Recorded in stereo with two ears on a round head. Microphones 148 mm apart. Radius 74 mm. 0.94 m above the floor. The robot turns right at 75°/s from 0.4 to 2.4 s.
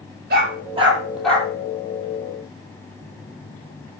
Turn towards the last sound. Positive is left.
turn(degrees=65)  # may be behind; listen again after turning